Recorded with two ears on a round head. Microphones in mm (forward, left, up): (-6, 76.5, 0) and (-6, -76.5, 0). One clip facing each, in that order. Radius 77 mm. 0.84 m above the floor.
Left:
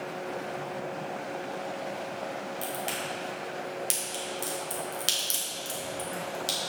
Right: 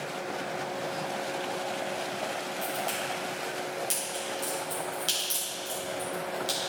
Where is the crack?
25° left (ahead or behind), 1.6 m.